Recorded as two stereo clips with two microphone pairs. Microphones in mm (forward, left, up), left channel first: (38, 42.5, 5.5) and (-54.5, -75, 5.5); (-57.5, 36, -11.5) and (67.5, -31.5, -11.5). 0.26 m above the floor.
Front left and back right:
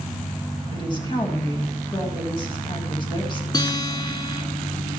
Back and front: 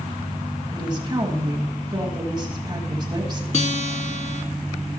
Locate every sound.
0.7 s a woman speaking: 15° left, 1.7 m
3.5 s a guitar: 115° left, 0.6 m